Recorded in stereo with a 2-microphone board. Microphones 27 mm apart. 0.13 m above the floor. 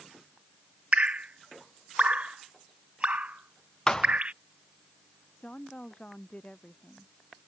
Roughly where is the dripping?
Right.